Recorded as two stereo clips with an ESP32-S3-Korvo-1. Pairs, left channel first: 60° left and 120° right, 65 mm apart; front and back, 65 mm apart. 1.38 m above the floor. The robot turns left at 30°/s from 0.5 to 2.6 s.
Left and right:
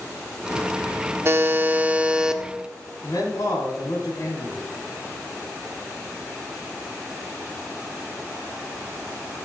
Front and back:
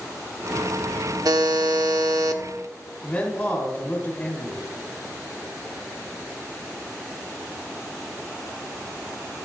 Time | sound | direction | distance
1.2 | a buzzer | 170° right | 0.7 m
3.0 | a man speaking | 65° left | 3.5 m